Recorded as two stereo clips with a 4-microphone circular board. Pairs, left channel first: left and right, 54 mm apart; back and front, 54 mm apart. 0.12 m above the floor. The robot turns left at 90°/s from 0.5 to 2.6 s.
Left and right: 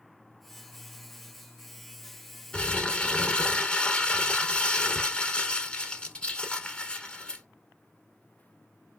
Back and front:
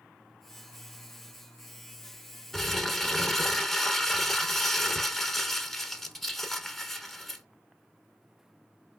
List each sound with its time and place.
2.5 s crumpling: 110° left, 0.6 m; by 7.5 s 105° left, 0.6 m